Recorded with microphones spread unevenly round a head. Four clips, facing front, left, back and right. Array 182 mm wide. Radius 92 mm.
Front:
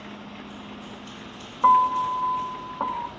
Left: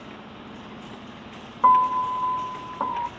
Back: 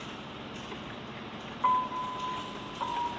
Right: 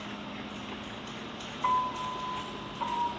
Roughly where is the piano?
Ahead left.